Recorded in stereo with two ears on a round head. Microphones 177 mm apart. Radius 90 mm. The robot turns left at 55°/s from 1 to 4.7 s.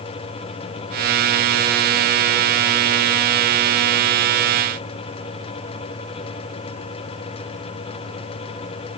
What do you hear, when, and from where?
Only background noise.